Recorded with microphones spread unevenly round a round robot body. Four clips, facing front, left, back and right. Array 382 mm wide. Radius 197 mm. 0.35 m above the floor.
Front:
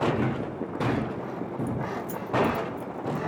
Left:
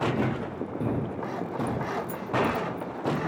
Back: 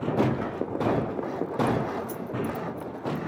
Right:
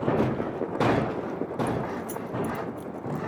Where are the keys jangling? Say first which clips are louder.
Even, back 3 dB; 90° right.